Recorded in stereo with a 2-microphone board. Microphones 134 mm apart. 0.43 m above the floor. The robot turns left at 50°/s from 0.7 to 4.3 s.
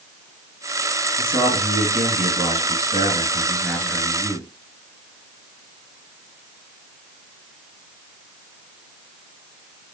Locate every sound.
1.2 s a man speaking: 35° right (ahead or behind), 2 m; by 4.5 s 10° left (ahead or behind), 2 m